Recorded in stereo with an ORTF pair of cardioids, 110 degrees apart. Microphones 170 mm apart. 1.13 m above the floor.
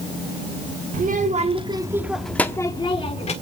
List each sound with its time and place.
0.9 s a child speaking: 55° right, 1.7 m; by 3.3 s 40° left, 1.9 m